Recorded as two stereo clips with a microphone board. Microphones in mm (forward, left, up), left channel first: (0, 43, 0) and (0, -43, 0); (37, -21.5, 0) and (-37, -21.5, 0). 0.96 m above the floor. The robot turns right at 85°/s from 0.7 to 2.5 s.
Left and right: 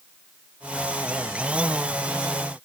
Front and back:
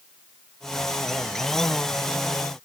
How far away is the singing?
I don't hear singing.